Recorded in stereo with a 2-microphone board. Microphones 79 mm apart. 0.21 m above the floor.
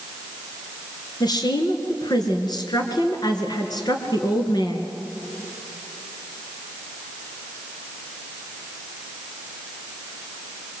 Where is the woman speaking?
60° left (ahead or behind), 3.5 m.